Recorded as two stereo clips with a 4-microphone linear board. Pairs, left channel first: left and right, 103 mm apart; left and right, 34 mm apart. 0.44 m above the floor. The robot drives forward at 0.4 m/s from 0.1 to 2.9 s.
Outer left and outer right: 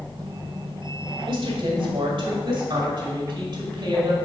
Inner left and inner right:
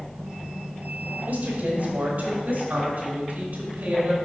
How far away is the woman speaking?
About 1.5 m.